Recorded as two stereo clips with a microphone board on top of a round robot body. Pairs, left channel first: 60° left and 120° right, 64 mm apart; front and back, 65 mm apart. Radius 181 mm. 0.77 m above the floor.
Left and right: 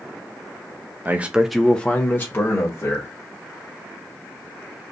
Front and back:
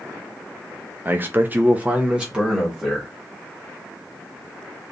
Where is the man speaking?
150° right, 0.8 m; by 3.1 s 95° left, 1.5 m.